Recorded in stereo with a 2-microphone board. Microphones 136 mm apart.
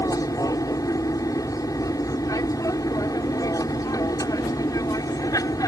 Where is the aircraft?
25° left (ahead or behind).